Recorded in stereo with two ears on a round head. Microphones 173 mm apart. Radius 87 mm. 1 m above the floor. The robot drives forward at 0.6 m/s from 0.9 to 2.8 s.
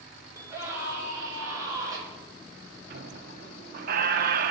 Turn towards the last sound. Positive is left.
turn(degrees=-50)  # may be behind; listen again after turning